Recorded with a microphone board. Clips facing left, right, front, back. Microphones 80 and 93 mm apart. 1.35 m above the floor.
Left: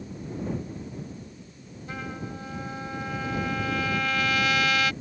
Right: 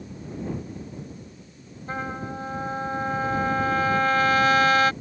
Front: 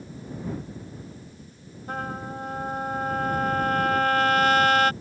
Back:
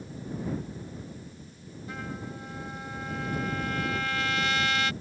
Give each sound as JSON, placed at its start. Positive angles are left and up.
{"t": 1.9, "sound": "a trumpet", "azimuth_deg": -40}